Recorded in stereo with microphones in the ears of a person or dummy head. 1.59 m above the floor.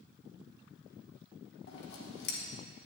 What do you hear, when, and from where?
1.7 s scissors: 60° left (ahead or behind), 1.6 m